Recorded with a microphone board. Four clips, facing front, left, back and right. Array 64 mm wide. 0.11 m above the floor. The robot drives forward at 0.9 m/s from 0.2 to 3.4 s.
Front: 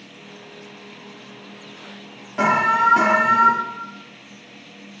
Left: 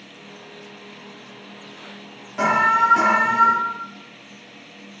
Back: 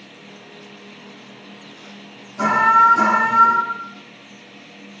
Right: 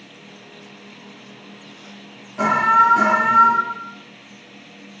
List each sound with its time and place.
2.4 s an alarm: 15° left, 4 m; by 3.5 s 20° left, 3.5 m